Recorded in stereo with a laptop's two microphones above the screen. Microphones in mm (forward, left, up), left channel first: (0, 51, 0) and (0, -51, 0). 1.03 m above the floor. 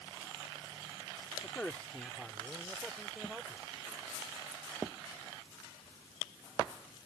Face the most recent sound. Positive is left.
turn(degrees=-10)  # may be behind; listen again after turning